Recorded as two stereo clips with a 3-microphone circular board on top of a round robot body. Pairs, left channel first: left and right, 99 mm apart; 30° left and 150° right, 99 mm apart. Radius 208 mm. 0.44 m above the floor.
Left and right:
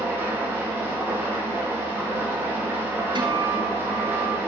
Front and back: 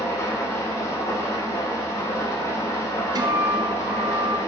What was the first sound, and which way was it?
An engine running, 30° right.